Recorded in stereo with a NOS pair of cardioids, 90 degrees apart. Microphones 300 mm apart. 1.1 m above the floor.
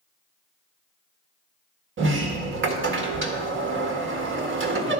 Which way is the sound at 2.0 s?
40° right.